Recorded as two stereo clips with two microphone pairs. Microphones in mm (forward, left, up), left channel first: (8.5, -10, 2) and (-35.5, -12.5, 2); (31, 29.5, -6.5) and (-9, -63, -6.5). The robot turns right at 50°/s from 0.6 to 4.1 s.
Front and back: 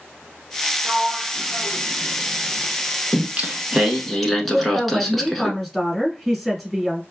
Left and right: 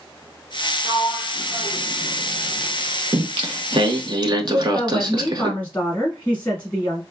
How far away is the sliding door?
About 0.7 m.